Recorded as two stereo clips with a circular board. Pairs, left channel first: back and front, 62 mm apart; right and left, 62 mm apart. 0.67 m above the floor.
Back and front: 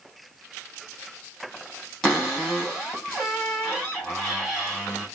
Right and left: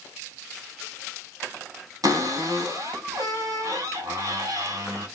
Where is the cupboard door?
95° left, 2.5 m.